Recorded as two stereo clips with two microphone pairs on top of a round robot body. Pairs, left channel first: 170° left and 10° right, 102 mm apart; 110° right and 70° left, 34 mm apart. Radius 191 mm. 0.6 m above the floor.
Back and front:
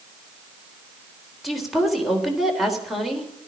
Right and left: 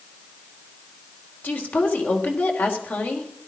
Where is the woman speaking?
100° right, 3.5 m.